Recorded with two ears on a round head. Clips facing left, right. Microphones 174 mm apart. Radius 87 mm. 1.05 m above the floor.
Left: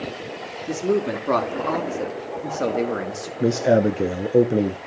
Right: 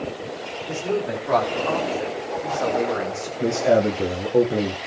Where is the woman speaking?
70° left (ahead or behind), 2 m; by 3.3 s 30° left (ahead or behind), 1.9 m.